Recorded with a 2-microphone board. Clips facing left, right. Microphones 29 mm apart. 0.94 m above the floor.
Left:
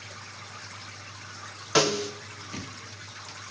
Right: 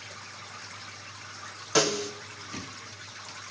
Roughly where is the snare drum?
Left.